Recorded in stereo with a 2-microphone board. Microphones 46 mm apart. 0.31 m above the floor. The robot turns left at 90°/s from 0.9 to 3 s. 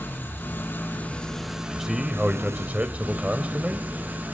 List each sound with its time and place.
0.0 s an engine running: 50° left, 3 m; by 4.4 s 140° right, 3 m
1.6 s a man speaking: 10° left, 1.0 m; by 3.9 s 115° right, 1.0 m